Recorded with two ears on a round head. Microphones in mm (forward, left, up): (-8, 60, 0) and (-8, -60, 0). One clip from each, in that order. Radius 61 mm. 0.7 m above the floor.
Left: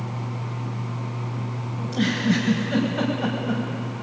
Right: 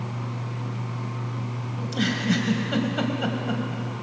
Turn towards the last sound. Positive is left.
turn(degrees=-40)  # may be behind; listen again after turning